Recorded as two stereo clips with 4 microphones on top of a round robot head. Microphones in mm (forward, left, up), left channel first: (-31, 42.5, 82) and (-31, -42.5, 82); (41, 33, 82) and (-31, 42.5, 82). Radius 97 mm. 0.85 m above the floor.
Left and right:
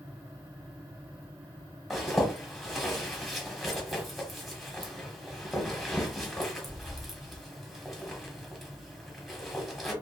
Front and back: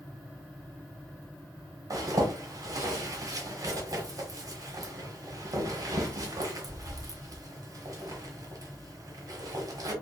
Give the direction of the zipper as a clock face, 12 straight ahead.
6 o'clock.